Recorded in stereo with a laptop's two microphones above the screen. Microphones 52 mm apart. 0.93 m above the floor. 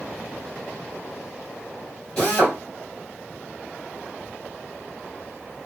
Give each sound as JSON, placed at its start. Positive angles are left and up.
{"t": 2.2, "sound": "a drill", "side_deg": 20, "distance_m": 1.9}